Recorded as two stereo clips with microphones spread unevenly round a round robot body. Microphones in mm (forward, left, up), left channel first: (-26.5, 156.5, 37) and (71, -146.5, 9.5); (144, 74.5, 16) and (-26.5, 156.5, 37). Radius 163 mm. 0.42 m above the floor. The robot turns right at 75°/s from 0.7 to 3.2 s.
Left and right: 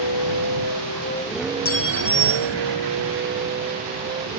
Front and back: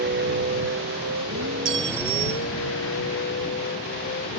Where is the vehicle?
125° left; by 4.4 s 5° right.